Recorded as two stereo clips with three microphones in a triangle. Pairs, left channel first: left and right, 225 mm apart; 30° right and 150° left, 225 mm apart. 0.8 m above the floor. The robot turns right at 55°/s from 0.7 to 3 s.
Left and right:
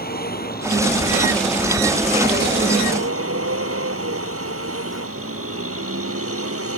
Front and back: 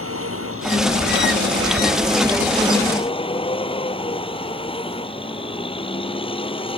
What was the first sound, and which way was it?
A vehicle, 135° left.